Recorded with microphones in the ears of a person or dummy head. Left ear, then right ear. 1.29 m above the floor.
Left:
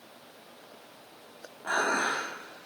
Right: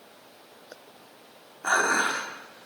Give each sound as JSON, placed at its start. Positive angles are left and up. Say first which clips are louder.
{"t": 1.6, "sound": "dishes clattering", "louder": "right 4 dB", "side_deg": -50, "distance_m": 1.3}